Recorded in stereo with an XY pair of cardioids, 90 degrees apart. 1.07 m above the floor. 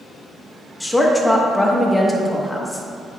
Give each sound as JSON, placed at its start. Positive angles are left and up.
{"t": 0.8, "sound": "a woman speaking", "azimuth_deg": 10, "distance_m": 1.2}